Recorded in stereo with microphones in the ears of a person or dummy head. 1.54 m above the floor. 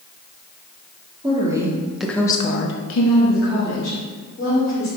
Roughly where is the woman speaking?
Right.